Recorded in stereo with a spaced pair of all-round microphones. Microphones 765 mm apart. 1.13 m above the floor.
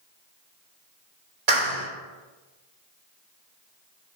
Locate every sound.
1.5 s a clap: 65° right (ahead or behind), 3 m